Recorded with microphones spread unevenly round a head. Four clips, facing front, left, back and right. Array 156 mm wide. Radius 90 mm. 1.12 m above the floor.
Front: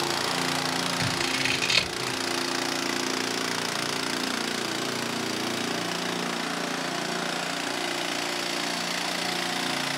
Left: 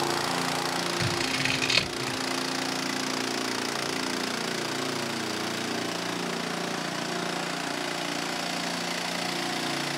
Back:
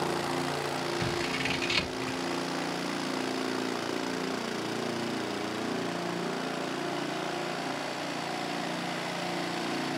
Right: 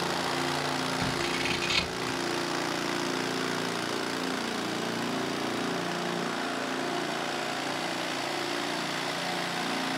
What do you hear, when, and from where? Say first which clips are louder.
1.0 s scissors: left 1 dB, front 2 dB; 80° left, 3 m